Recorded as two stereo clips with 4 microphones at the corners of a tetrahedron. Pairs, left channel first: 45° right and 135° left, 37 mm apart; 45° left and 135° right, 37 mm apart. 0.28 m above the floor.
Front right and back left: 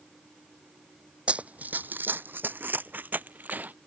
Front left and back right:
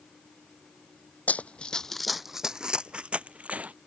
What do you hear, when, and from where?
1.3 s running footsteps: 85° left; by 3.7 s 175° left